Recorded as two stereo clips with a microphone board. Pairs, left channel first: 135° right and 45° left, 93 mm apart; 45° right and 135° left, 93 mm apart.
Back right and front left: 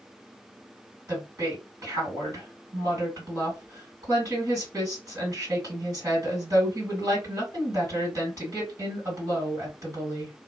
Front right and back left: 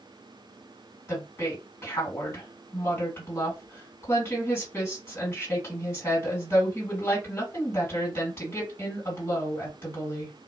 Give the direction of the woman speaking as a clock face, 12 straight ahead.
12 o'clock.